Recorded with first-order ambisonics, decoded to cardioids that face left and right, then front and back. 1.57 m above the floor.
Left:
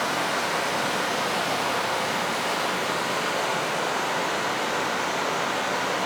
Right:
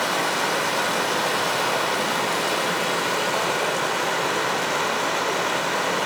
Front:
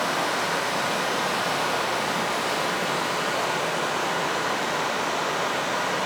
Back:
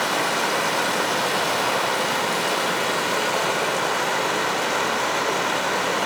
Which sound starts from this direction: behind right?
Running water, at 0.0 s.